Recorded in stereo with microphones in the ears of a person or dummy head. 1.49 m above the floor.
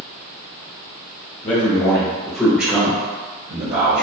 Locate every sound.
1.4 s a man speaking: 40° left (ahead or behind), 0.8 m; by 4.0 s 60° right (ahead or behind), 0.9 m